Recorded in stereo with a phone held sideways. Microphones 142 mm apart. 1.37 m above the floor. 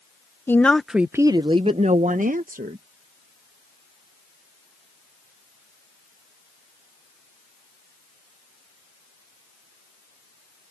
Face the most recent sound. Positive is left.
turn(degrees=-80)